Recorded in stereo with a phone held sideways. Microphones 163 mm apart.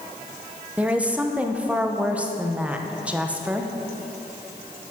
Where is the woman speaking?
10° right (ahead or behind), 0.8 m.